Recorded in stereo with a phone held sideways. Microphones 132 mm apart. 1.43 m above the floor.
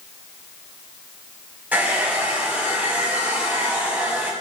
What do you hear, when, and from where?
1.7 s a hair dryer: 10° right (ahead or behind), 8 m